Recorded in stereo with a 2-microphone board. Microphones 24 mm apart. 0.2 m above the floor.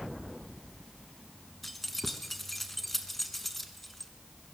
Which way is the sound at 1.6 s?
5° left (ahead or behind).